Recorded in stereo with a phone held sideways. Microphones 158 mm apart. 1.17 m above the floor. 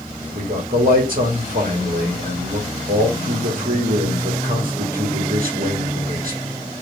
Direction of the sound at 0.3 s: 60° right (ahead or behind).